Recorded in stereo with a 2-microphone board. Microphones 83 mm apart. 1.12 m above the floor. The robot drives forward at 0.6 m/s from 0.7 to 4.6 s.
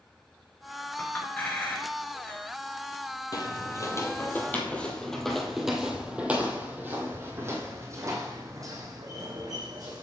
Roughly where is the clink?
Centre.